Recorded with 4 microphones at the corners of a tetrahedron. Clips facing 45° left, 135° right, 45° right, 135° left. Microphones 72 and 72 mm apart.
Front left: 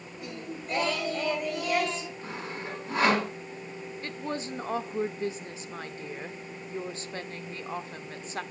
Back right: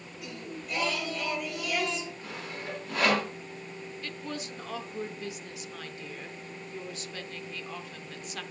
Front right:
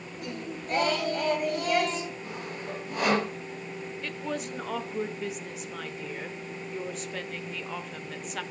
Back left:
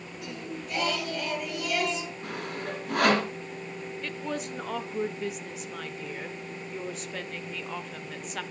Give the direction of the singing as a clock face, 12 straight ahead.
12 o'clock.